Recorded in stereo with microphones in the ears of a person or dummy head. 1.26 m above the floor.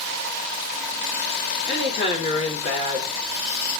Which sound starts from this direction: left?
A woman speaking, at 1.7 s.